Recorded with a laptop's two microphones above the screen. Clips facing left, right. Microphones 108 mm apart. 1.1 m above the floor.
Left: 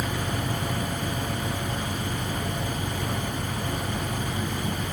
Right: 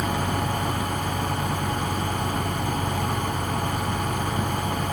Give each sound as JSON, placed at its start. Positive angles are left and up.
{"t": 0.0, "sound": "a fan", "side_deg": -55}